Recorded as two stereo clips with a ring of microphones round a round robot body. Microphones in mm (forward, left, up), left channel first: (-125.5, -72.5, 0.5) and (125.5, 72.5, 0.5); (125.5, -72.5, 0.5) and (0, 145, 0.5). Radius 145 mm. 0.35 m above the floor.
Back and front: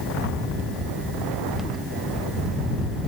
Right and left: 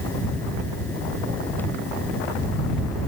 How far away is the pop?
I don't hear a pop.